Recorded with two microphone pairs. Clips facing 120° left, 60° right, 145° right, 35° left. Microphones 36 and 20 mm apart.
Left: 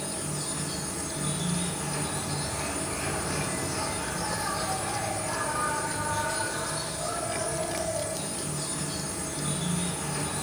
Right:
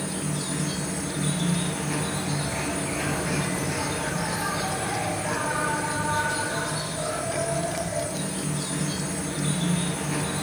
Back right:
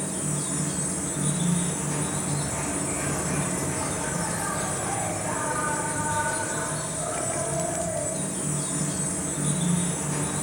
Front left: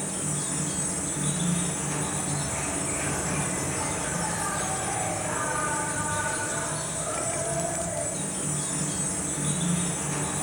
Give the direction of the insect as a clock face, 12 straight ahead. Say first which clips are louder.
Right 4 dB, back right 1 dB; 2 o'clock.